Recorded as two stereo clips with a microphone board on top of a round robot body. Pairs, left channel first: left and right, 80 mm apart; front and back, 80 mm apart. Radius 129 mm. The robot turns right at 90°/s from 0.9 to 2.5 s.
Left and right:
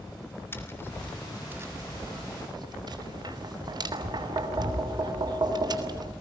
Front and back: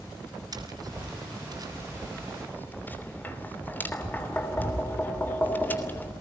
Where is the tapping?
150° left, 3 m; by 6.1 s 65° right, 3 m.